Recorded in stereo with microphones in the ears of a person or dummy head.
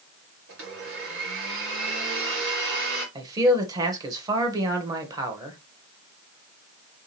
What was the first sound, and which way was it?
A blender, 65° right (ahead or behind).